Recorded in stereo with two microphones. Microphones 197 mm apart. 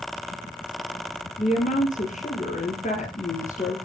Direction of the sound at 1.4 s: 40° left (ahead or behind).